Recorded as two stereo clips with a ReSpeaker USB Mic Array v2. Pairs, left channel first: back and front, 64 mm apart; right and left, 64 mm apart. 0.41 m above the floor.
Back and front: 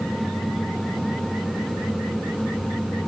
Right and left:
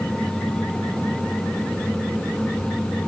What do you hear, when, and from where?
Only background noise.